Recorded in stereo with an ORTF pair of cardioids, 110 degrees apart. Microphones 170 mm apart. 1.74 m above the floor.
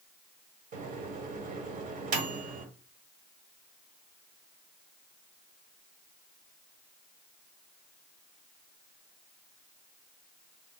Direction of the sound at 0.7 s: 50° right.